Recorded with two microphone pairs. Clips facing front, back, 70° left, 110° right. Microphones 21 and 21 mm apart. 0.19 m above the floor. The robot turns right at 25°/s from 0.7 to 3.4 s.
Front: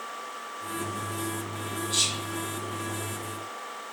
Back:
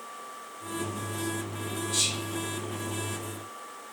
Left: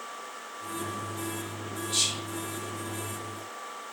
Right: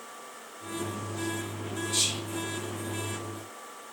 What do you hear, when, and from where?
1.9 s whispering: 25° left, 1.1 m; by 2.2 s 30° left, 1.1 m